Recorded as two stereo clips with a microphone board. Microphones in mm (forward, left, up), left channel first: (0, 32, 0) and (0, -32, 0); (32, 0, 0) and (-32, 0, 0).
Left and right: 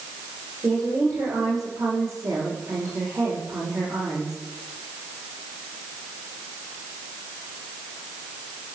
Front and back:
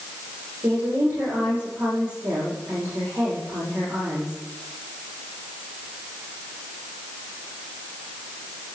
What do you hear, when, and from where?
0.6 s a woman speaking: 125° right, 7.5 m